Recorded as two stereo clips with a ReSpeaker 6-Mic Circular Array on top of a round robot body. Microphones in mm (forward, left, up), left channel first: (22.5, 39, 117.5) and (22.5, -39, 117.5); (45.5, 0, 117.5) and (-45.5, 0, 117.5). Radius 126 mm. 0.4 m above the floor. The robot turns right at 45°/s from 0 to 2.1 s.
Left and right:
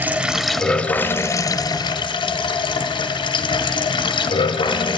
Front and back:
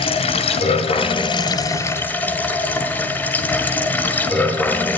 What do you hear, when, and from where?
0.0 s running water: 25° right, 1.6 m; by 5.0 s 70° left, 1.6 m